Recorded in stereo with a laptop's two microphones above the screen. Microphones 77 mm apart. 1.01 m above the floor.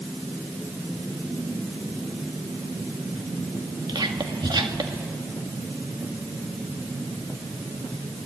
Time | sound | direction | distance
3.9 | whispering | 75° right (ahead or behind) | 1.9 m